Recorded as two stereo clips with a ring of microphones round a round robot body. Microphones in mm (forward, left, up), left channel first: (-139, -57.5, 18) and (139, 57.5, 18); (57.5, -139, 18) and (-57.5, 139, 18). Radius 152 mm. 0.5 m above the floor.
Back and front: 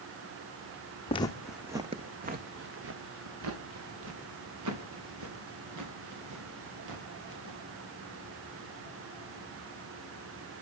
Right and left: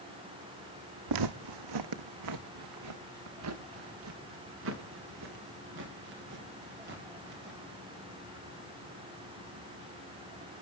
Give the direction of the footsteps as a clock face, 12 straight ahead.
8 o'clock.